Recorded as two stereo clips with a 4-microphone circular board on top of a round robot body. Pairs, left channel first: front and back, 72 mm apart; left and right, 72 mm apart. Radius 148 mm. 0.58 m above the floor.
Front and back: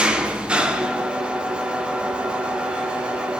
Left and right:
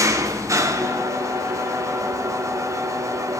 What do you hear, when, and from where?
0.0 s an engine running: 110° right, 1.1 m